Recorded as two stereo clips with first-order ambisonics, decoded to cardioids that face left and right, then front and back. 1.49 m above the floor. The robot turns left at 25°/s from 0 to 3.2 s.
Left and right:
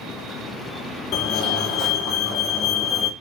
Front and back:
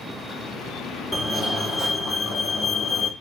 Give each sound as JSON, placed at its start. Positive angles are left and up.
{"t": 1.1, "sound": "a fire alarm", "azimuth_deg": 75, "distance_m": 1.6}